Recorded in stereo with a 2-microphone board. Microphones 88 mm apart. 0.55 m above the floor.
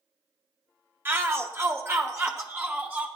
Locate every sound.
1.1 s a shout: 25° right (ahead or behind), 1.0 m